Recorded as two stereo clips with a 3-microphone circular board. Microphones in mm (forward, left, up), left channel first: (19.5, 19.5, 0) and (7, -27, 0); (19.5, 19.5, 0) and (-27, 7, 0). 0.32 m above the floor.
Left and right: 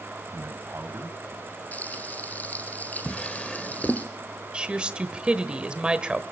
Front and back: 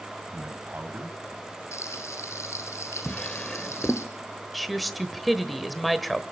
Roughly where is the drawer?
Ahead left.